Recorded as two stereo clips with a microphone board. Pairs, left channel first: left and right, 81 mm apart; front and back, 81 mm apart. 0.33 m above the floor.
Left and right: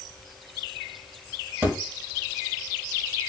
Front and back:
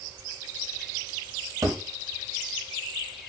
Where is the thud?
145° right, 0.9 m.